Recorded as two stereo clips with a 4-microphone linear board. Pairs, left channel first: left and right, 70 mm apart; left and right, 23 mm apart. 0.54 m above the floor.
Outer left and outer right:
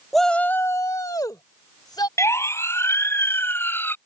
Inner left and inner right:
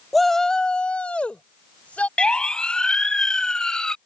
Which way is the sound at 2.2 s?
40° left (ahead or behind).